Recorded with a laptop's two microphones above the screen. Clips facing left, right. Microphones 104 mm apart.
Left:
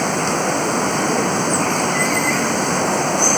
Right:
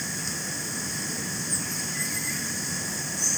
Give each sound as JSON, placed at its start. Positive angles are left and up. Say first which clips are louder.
{"t": 0.0, "sound": "running water", "louder": "left 18 dB", "side_deg": 75}